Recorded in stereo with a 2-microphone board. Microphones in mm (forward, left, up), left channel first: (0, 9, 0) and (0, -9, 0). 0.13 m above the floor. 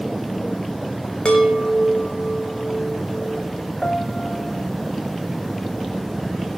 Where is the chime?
75° left (ahead or behind), 3 m.